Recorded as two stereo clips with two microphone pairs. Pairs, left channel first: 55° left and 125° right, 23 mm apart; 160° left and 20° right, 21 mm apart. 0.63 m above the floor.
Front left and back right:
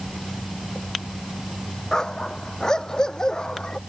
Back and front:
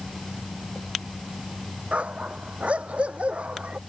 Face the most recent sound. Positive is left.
turn(degrees=-5)